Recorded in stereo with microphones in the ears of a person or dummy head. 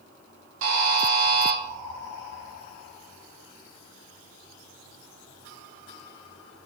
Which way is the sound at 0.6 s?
75° right (ahead or behind).